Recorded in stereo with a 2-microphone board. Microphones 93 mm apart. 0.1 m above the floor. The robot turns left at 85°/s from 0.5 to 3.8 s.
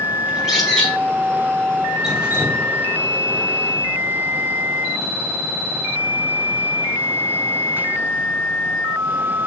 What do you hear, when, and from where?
0.3 s a bird: 5° right (ahead or behind), 1.3 m; by 0.9 s 10° left (ahead or behind), 1.3 m
2.0 s dripping: 5° right, 1.1 m; by 2.7 s 60° right, 1.1 m